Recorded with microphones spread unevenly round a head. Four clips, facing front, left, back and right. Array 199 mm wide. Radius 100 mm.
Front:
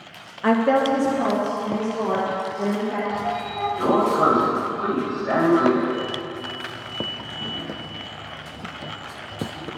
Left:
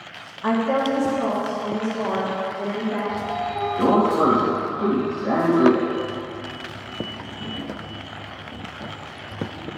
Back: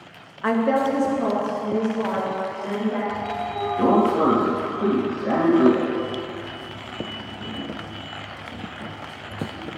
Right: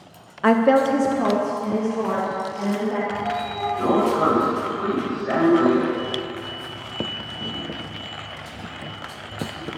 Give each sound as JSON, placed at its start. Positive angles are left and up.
{"t": 0.4, "sound": "a woman speaking", "azimuth_deg": -80, "distance_m": 0.6}
{"t": 3.1, "sound": "a sliding door", "azimuth_deg": 145, "distance_m": 2.5}